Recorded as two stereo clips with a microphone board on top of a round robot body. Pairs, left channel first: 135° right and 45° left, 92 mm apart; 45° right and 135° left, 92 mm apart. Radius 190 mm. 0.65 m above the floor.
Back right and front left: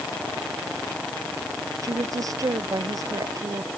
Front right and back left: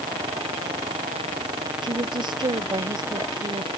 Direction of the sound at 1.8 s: 100° left.